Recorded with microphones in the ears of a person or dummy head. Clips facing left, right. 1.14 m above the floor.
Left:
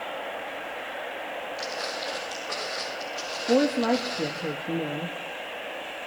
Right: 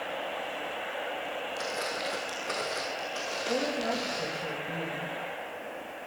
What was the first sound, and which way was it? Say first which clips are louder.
Footsteps: left 1 dB; 40° right (ahead or behind).